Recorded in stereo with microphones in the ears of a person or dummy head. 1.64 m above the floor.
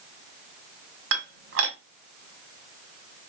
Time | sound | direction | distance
1.1 | dishes clattering | 55° right (ahead or behind) | 1.2 m